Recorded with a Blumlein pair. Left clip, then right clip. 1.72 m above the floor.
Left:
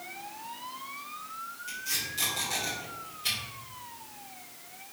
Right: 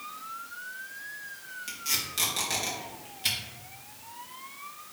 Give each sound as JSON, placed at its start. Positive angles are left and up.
{"t": 1.7, "sound": "tape being pulled", "azimuth_deg": -65, "distance_m": 1.8}